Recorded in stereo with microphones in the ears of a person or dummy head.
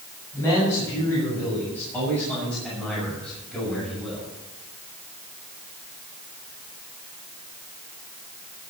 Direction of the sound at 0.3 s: 20° left (ahead or behind).